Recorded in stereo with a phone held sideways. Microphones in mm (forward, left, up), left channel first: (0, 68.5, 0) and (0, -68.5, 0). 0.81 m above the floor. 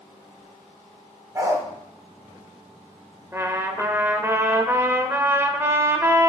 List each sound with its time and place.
1.4 s a dog barking: 25° right (ahead or behind), 1.0 m
3.3 s a trumpet: 20° right (ahead or behind), 0.6 m